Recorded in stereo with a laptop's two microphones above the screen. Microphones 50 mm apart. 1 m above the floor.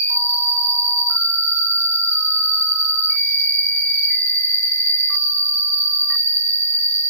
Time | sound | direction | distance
0.0 | an insect | 50° right (ahead or behind) | 3.5 m